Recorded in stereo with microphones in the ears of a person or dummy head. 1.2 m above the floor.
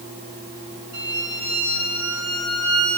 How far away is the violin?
About 5 m.